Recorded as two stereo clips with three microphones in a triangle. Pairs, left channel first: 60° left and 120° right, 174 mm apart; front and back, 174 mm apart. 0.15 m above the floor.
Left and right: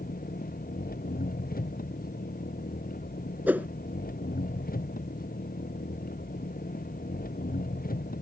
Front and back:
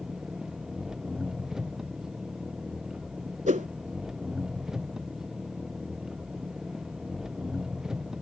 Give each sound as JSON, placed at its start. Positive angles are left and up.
{"t": 0.0, "sound": "an engine running", "azimuth_deg": 95}
{"t": 3.5, "sound": "a whoosh", "azimuth_deg": 165}